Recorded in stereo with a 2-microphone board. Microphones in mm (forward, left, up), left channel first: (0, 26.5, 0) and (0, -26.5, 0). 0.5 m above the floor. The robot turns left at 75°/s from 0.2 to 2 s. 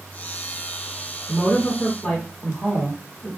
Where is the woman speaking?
85° left, 1.4 m; by 3.3 s 30° left, 1.4 m.